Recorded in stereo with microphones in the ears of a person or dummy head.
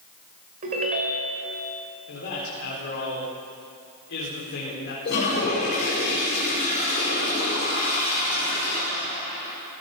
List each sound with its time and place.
0.6 s a ringtone: 40° right (ahead or behind), 2.5 m
2.1 s a man speaking: 70° left (ahead or behind), 4 m
5.0 s a toilet flushing: 55° left (ahead or behind), 5.5 m